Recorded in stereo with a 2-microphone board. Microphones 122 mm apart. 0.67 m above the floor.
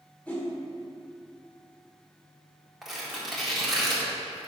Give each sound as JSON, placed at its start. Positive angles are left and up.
{"t": 0.3, "sound": "a whoosh", "side_deg": 10, "distance_m": 1.9}
{"t": 2.8, "sound": "tearing paper", "side_deg": 0, "distance_m": 1.8}